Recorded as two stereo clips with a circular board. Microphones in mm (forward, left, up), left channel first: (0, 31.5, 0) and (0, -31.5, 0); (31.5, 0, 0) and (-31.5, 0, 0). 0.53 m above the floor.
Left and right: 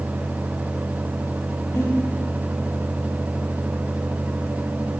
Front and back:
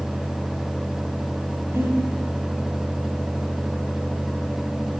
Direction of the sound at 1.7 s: 135° left.